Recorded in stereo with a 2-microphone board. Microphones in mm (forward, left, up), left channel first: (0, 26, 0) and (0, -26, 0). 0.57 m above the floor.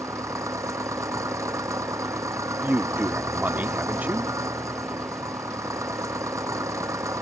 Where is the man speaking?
30° right (ahead or behind).